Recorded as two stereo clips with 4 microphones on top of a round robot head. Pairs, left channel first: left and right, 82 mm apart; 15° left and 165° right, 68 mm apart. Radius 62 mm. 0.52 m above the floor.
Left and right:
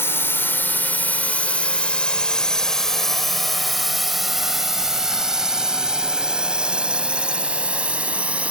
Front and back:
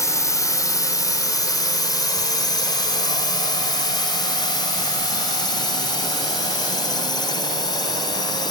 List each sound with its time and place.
0.0 s a drone: 35° left; by 8.5 s 15° right